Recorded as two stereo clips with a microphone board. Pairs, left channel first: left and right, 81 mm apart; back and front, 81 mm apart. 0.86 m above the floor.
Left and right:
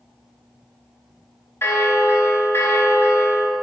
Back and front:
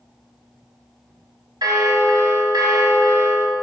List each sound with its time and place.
1.6 s a bell: 30° left, 1.1 m